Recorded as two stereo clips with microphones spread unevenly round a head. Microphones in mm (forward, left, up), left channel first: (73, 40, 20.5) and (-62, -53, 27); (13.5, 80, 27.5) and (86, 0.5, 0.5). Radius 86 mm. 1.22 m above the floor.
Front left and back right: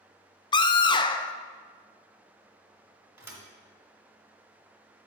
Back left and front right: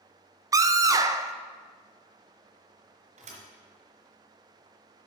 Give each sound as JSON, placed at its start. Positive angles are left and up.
{"t": 0.5, "sound": "a scream", "azimuth_deg": -20, "distance_m": 0.6}
{"t": 3.2, "sound": "a thud", "azimuth_deg": -75, "distance_m": 1.7}